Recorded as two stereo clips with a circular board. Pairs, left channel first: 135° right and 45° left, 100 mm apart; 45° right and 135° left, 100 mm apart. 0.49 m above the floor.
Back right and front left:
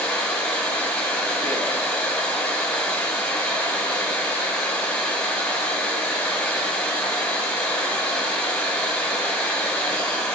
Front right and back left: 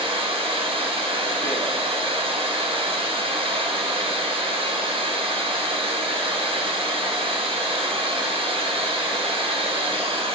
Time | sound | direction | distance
0.0 | running water | 145° left | 2.5 m